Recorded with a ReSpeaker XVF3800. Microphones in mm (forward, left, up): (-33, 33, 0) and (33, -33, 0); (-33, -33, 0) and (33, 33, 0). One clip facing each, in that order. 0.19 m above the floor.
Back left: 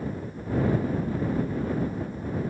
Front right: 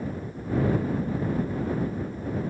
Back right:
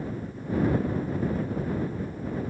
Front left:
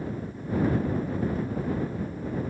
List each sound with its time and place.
Only background noise.